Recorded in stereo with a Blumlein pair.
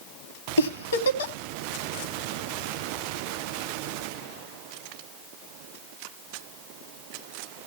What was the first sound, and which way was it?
A giggle, 70° left.